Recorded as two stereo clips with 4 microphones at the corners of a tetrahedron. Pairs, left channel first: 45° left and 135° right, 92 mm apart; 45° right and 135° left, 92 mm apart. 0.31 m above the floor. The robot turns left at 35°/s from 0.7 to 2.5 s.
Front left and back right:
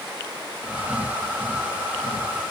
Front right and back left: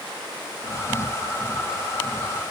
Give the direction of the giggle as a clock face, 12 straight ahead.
I don't hear a giggle.